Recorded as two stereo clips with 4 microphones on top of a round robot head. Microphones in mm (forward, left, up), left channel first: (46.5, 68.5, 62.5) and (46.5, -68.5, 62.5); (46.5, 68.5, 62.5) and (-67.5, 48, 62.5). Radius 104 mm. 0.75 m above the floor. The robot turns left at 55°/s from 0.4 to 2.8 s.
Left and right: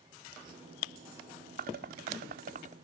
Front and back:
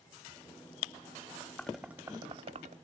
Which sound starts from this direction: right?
Dishes clattering, at 1.6 s.